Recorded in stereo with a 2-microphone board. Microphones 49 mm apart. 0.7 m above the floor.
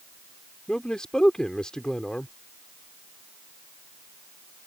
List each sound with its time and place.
0.7 s a man speaking: 15° left (ahead or behind)